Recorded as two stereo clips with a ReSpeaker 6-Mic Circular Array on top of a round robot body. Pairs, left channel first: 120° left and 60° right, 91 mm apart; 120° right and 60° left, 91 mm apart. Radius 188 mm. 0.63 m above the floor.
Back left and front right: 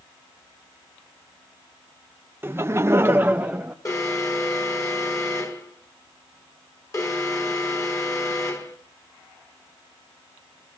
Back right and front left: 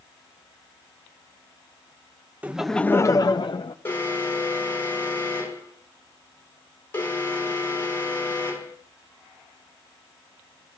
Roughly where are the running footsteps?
I don't hear running footsteps.